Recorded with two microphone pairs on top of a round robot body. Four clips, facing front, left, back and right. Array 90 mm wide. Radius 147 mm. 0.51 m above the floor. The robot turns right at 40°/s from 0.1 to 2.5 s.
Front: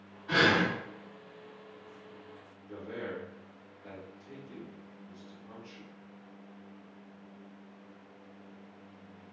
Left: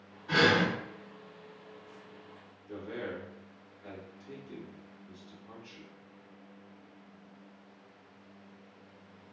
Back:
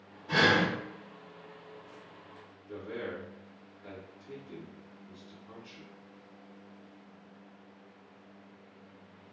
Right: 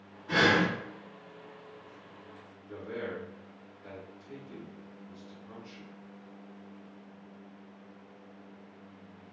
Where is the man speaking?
100° left, 1.8 m.